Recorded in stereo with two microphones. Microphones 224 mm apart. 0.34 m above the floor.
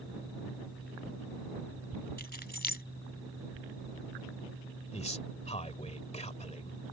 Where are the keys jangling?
45° left (ahead or behind).